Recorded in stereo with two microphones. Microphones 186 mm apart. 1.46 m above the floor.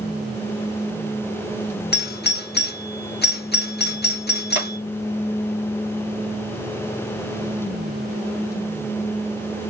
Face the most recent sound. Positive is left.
turn(degrees=-75)  # may be behind; listen again after turning